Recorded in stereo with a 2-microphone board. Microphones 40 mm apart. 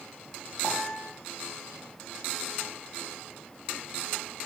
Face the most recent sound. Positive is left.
turn(degrees=50)  # may be behind; listen again after turning